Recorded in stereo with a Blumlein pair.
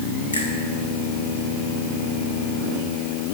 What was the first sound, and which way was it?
A finger snap, 70° left.